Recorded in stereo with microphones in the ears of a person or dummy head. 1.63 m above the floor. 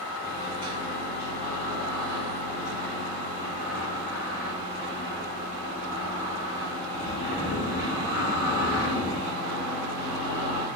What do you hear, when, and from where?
0.2 s a microwave: 60° left (ahead or behind), 1.6 m